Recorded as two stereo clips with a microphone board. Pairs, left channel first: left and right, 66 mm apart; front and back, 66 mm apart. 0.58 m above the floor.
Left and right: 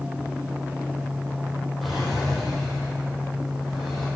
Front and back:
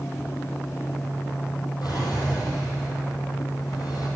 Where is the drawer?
Straight ahead, 4.5 m.